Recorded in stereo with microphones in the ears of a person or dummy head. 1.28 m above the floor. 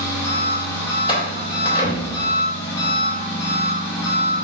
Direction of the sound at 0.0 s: 15° left (ahead or behind).